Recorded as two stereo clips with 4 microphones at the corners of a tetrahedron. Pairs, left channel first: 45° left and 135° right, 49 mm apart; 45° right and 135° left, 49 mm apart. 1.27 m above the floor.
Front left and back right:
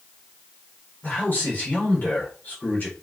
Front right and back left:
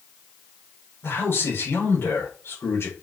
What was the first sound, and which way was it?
A man speaking, 5° right.